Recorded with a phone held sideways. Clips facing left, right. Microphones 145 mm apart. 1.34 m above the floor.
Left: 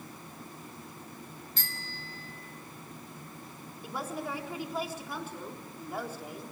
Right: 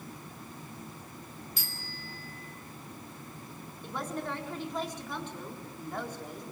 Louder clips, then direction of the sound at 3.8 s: Even; 10° left (ahead or behind).